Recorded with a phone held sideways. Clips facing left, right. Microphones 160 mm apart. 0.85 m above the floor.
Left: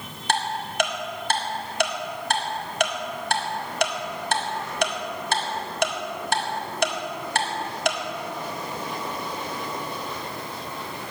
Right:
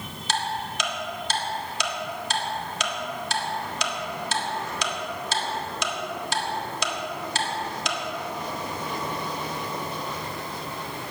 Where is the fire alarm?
I don't hear a fire alarm.